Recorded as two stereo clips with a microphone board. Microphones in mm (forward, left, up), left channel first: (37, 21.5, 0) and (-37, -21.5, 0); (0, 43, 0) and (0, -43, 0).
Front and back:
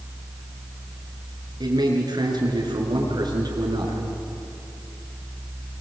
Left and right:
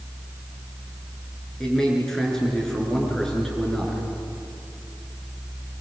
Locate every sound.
1.6 s a man speaking: 175° left, 6 m